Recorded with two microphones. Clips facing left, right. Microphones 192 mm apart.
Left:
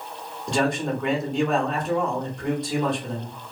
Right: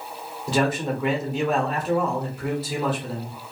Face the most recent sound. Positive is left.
turn(degrees=-5)  # may be behind; listen again after turning